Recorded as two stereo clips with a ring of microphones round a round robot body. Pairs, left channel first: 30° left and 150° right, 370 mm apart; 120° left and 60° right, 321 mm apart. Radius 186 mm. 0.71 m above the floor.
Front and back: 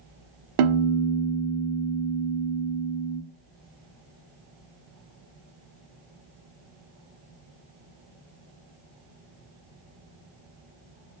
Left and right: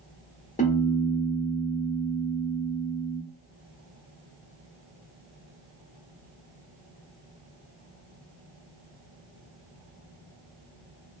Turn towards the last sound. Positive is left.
turn(degrees=-170)